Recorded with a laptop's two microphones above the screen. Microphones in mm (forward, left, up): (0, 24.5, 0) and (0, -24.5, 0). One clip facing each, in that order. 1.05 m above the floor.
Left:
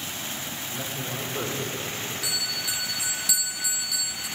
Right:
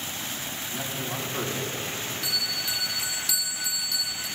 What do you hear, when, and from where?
0.7 s a man speaking: 45° right (ahead or behind), 3.5 m
2.2 s a bell: 5° left (ahead or behind), 1.6 m